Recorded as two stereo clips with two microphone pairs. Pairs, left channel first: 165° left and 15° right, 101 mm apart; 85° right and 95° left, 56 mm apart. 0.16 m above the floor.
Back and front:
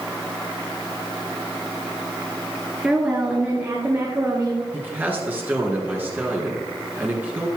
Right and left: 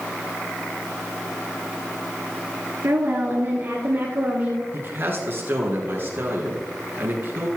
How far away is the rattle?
I don't hear a rattle.